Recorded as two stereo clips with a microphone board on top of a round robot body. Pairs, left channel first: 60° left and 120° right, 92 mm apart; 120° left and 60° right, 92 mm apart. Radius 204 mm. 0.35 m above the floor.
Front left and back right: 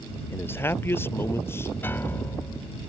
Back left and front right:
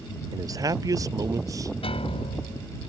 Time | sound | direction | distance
0.3 | a man speaking | 10° right | ?
1.8 | a piano | 125° left | ?